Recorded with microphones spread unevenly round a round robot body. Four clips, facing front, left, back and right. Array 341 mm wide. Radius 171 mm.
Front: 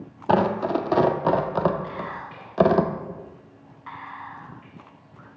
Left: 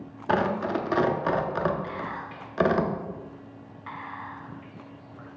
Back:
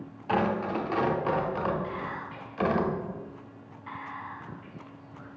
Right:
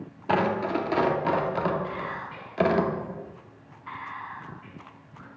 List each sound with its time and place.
0.3 s tearing paper: straight ahead, 0.7 m
1.8 s whispering: 70° left, 4 m